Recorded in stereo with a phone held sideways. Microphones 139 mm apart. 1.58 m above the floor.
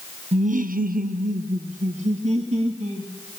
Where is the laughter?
50° right (ahead or behind), 0.8 m.